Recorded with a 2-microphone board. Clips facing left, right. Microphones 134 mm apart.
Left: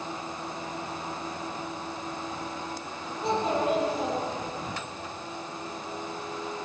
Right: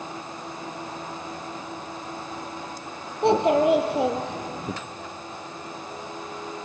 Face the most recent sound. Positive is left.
turn(degrees=-70)  # may be behind; listen again after turning